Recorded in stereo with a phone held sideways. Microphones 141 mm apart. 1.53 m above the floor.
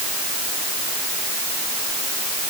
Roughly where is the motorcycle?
I don't hear a motorcycle.